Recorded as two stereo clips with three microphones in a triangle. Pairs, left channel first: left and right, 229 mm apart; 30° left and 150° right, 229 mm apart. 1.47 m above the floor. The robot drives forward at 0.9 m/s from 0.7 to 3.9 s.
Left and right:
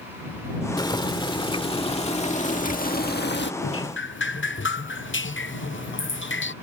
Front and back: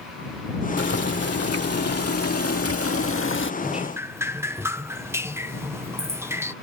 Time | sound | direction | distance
0.8 | boiling | 20° left | ?
3.6 | dripping | 115° left | ?